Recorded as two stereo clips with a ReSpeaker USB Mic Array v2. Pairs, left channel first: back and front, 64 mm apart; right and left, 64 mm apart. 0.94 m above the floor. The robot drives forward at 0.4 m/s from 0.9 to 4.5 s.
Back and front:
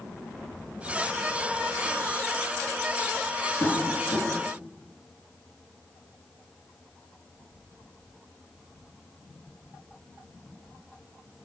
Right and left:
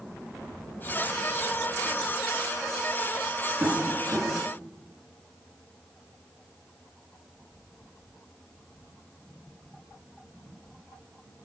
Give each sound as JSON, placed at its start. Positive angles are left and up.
{"t": 3.6, "sound": "tapping", "azimuth_deg": 160, "distance_m": 6.5}